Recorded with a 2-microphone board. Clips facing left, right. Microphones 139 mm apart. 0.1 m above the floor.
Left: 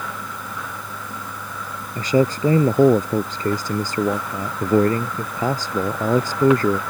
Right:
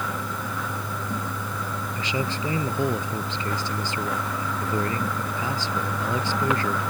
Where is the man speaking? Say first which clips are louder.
Left 12 dB; 45° left (ahead or behind).